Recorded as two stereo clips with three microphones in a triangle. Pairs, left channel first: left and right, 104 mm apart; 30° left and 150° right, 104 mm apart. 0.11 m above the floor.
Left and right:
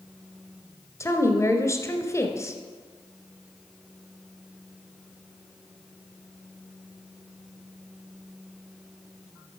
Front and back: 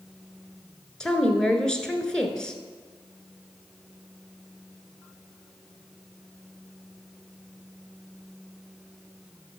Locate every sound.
1.0 s a woman speaking: 105° left, 1.4 m